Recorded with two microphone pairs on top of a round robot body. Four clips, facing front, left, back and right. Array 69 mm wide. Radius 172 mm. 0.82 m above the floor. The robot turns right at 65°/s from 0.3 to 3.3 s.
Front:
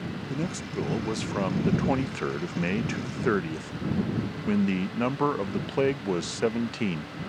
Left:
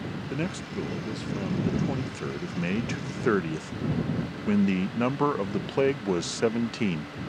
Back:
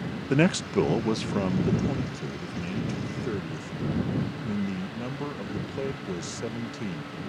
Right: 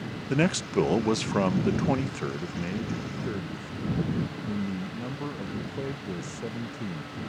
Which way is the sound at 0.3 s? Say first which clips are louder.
Right 9 dB, back 11 dB; 145° right.